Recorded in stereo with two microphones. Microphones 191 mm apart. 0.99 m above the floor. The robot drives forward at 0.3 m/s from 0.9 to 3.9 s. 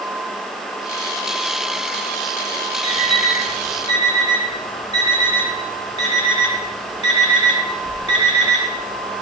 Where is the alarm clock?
40° left (ahead or behind), 3 m; by 9.1 s 35° left (ahead or behind), 3 m.